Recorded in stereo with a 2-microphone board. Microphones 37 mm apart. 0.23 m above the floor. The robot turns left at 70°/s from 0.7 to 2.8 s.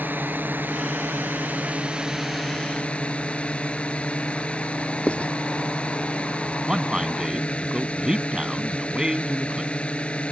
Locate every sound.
0.0 s a drone: 65° right; by 10.3 s 145° left
5.1 s writing: 35° left (ahead or behind)
6.7 s a man speaking: 20° right (ahead or behind)